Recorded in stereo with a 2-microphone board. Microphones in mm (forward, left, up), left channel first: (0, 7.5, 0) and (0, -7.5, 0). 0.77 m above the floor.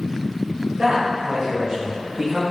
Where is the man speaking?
65° right (ahead or behind), 2.5 m; by 2.4 s 35° right (ahead or behind), 2.5 m.